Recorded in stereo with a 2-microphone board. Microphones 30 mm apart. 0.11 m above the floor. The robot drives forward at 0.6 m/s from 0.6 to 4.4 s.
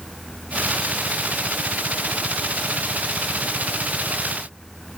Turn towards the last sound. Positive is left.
No sound to turn to.